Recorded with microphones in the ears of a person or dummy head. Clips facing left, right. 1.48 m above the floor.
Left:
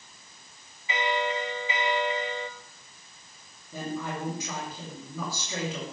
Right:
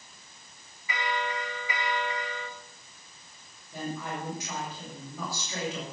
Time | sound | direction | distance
0.9 | a bell | 25° left (ahead or behind) | 1.5 m
3.7 | a woman speaking | 75° left (ahead or behind) | 7.5 m